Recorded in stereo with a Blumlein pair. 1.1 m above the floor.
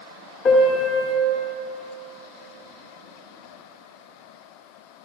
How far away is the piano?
About 1.7 m.